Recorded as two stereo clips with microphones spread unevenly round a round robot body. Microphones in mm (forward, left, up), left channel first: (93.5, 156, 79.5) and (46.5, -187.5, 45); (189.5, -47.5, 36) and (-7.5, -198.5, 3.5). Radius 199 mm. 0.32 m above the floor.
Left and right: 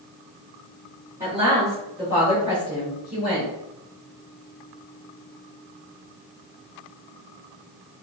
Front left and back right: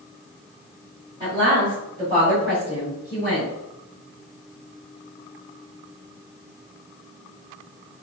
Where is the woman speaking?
155° right, 1.4 m; by 3.5 s 150° left, 2 m.